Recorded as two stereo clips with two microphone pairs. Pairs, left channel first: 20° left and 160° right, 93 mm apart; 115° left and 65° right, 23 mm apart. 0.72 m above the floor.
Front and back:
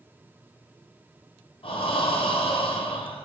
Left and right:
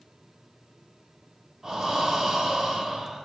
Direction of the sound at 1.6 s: 5° left.